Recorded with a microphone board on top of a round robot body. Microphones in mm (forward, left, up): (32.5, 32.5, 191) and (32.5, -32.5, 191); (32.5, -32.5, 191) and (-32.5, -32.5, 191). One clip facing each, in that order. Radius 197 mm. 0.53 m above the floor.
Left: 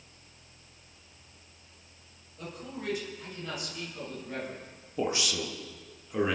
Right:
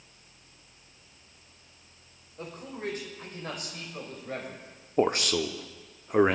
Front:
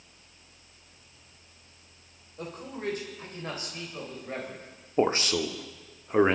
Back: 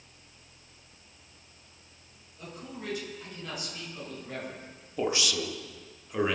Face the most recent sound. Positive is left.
turn(degrees=-50)